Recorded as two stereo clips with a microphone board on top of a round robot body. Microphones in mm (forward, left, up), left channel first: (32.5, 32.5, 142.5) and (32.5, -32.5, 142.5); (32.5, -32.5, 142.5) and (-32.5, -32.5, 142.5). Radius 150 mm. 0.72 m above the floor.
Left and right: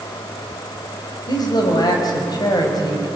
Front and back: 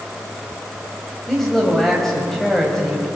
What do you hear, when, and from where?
1.3 s a man speaking: 85° left, 5 m